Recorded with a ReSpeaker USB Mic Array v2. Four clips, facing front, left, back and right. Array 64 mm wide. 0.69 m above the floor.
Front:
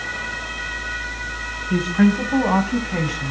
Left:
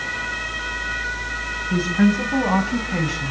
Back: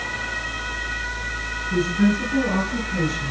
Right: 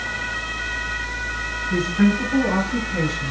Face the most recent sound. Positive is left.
turn(degrees=35)